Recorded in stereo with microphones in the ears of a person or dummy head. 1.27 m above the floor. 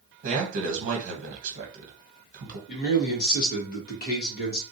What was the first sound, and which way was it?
A man speaking, 45° right (ahead or behind).